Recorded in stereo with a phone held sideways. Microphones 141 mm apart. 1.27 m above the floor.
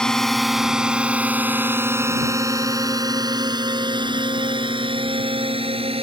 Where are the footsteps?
I don't hear footsteps.